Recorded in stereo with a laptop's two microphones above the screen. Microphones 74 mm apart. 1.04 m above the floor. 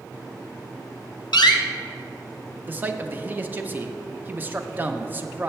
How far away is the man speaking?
About 0.7 m.